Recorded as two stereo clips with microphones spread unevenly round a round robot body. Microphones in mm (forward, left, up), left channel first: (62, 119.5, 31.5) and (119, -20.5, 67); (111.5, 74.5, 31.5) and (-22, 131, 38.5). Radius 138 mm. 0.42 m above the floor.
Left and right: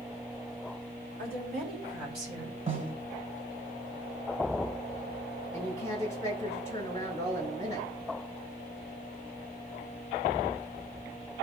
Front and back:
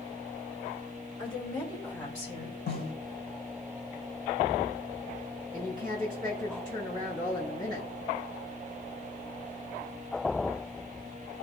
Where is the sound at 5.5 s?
135° right, 3.5 m.